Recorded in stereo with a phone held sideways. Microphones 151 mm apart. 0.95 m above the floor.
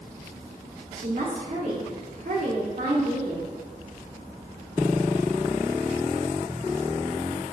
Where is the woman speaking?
60° right (ahead or behind), 2.5 m.